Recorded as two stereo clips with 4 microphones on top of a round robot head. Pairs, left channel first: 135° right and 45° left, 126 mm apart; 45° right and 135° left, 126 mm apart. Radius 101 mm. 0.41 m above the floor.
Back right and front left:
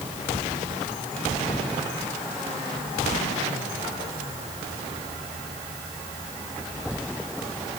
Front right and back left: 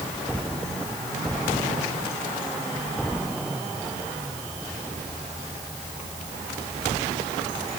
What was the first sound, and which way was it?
Only background noise.